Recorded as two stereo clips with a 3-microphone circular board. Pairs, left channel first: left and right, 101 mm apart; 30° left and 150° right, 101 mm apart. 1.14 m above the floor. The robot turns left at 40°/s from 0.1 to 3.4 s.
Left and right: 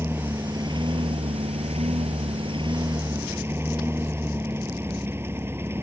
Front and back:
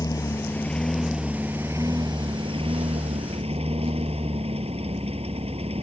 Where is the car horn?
I don't hear a car horn.